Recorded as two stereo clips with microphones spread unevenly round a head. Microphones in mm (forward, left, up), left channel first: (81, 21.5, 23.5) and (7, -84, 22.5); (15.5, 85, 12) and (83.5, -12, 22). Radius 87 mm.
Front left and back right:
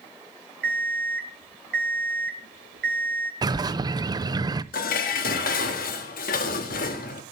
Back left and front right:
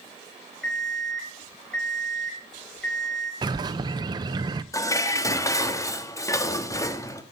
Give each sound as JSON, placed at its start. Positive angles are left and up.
{"t": 0.6, "sound": "an alarm clock", "azimuth_deg": -150, "distance_m": 2.0}
{"t": 3.4, "sound": "a bird", "azimuth_deg": -95, "distance_m": 0.6}
{"t": 4.7, "sound": "dishes clattering", "azimuth_deg": 60, "distance_m": 1.2}